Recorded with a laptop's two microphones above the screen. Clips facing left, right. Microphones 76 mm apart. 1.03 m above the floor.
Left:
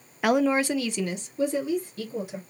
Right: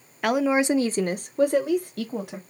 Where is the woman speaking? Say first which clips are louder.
Right 1 dB; 5° left (ahead or behind), 0.5 m; by 2.4 s 70° right (ahead or behind), 1.1 m.